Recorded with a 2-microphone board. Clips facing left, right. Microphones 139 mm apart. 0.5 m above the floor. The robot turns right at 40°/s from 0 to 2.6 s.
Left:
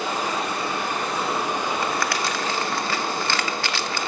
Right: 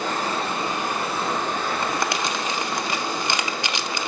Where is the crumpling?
25° right (ahead or behind), 0.6 m; by 4.1 s 20° right (ahead or behind), 0.6 m.